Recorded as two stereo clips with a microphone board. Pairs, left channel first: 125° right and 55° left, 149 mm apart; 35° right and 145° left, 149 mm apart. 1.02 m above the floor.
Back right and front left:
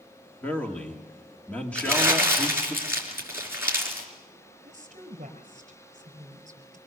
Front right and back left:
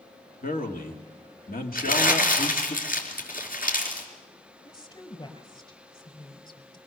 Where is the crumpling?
20° right, 4.5 m.